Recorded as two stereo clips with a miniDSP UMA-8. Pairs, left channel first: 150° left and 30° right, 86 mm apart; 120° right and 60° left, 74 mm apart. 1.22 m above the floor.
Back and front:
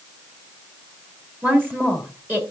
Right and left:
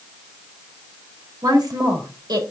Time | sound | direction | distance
1.4 | a woman speaking | 35° left | 2.5 m